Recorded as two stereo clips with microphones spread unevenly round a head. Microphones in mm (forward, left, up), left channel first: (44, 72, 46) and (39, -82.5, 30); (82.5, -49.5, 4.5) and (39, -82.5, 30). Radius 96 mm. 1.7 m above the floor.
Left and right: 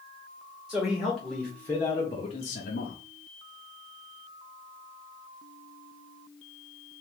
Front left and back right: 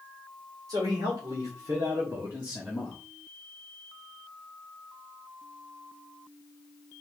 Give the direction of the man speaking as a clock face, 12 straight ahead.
6 o'clock.